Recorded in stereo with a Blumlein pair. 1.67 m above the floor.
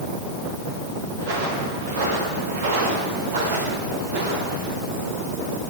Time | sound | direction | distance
1.2 | footsteps | 60° right | 9 m